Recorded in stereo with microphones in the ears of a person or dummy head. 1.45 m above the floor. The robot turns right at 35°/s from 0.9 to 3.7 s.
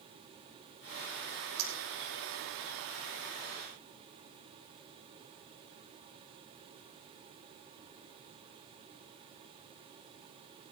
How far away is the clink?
About 5.5 m.